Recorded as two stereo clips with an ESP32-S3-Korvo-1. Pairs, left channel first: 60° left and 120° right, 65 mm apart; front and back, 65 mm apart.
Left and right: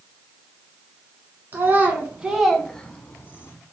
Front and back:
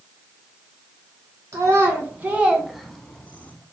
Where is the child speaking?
165° right, 0.9 m; by 3.5 s 45° left, 0.8 m.